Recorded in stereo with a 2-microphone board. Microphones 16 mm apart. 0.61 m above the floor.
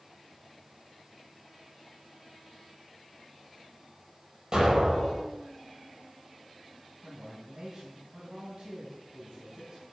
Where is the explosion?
40° right (ahead or behind), 7.5 m.